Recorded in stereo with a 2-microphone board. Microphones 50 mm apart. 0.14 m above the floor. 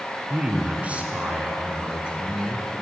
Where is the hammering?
No hammering in this recording.